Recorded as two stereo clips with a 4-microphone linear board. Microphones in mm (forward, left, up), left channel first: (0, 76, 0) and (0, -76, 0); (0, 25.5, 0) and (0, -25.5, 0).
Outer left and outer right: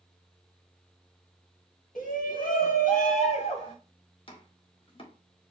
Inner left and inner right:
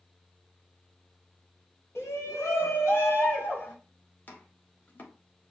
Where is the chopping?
35° left (ahead or behind), 1.2 m.